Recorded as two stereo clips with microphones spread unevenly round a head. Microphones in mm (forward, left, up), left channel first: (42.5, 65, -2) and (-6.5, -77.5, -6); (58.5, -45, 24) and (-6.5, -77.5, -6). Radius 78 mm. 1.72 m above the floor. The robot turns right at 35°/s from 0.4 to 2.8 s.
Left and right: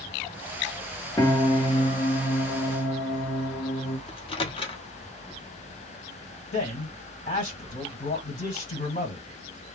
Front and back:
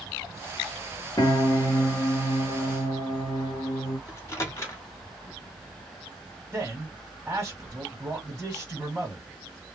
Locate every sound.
1.2 s a piano: straight ahead, 1.0 m; by 4.0 s 60° left, 1.0 m
4.1 s a microwave: 25° left, 0.7 m
6.5 s a man speaking: 120° left, 1.4 m